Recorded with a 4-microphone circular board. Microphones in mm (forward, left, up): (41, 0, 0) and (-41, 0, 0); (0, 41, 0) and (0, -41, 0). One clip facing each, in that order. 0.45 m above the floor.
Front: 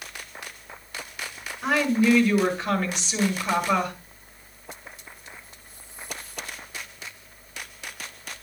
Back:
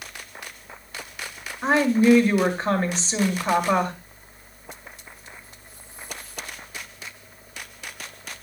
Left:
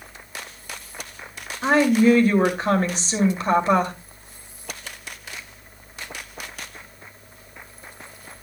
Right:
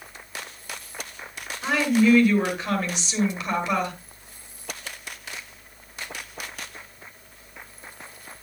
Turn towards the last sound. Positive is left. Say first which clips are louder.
# back 3 dB, left 4 dB
turn(degrees=130)